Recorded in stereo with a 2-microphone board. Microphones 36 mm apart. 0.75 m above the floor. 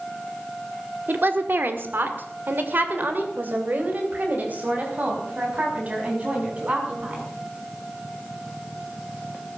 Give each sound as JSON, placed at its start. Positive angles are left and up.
{"t": 1.1, "sound": "a woman speaking", "side_deg": -65, "distance_m": 1.7}